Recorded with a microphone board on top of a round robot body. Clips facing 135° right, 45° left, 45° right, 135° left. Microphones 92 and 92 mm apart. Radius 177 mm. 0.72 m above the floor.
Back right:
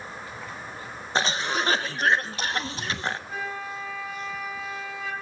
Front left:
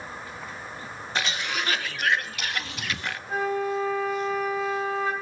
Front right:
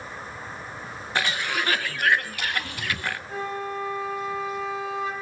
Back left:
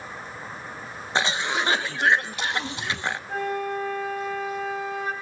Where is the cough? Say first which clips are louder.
Back right 4 dB, back left 2 dB; 170° right, 0.9 m.